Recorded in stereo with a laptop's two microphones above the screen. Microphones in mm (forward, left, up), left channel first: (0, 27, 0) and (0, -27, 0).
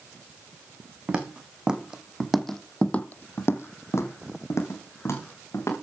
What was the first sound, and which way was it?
Footsteps, 20° right (ahead or behind).